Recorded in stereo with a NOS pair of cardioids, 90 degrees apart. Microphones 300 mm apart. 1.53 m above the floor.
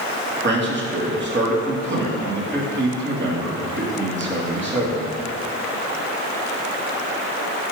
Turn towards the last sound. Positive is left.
turn(degrees=-35)